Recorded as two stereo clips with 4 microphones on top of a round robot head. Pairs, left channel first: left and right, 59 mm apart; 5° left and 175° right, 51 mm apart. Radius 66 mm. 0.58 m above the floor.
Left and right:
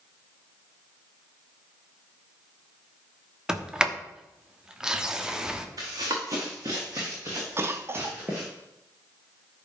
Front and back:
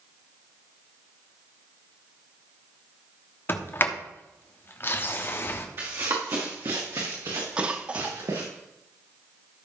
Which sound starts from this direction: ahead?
A sliding door, at 3.5 s.